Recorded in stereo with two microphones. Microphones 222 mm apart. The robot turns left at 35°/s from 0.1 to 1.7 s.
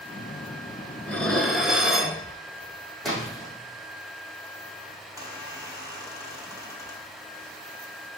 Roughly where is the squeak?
Centre.